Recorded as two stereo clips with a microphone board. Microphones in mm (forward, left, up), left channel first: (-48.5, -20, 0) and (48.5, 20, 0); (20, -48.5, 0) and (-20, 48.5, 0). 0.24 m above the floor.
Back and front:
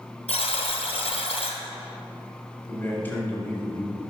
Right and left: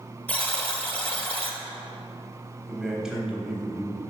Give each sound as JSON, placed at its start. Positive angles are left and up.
{"t": 0.3, "sound": "a buzzer", "azimuth_deg": -140, "distance_m": 0.9}
{"t": 2.7, "sound": "a man speaking", "azimuth_deg": -175, "distance_m": 1.1}